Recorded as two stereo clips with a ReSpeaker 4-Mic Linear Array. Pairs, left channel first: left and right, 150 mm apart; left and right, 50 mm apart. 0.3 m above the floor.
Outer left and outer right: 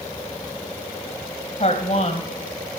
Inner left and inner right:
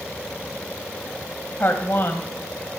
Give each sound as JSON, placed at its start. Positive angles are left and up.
{"t": 1.6, "sound": "a woman speaking", "side_deg": 50, "distance_m": 1.7}